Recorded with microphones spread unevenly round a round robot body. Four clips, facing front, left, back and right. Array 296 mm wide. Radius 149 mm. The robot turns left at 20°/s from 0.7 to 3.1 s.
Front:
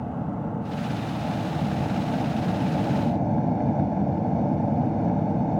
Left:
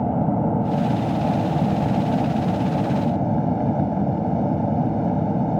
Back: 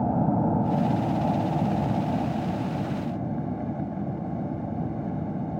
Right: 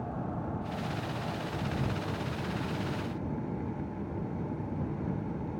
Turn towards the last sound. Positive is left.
turn(degrees=65)